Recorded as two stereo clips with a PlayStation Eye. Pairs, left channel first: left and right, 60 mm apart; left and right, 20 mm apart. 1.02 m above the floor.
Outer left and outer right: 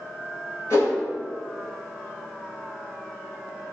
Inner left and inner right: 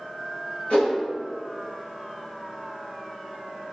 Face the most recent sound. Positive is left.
turn(degrees=65)  # may be behind; listen again after turning